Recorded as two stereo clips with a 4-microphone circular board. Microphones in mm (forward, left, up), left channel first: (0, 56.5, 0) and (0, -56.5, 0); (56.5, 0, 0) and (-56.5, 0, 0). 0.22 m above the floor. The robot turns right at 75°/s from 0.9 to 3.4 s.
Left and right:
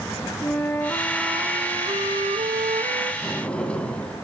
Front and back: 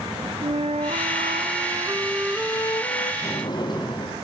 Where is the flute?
165° left, 1.5 m; by 3.1 s 30° right, 1.5 m.